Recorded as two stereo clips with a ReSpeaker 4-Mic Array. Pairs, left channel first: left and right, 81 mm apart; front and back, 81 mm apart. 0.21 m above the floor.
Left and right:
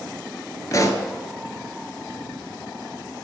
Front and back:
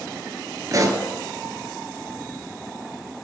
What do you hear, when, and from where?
0.7 s a pop: 135° left, 0.9 m